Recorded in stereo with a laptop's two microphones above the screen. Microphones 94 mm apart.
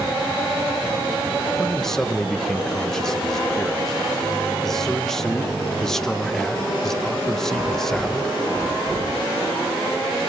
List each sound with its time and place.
1.6 s a man speaking: 5° left (ahead or behind), 1.1 m